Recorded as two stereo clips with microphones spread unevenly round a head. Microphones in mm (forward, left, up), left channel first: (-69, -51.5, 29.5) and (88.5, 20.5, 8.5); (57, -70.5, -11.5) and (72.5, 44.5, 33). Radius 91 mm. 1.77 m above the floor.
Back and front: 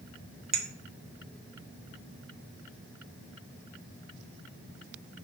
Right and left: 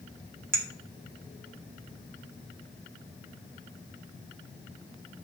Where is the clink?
75° left, 0.8 m.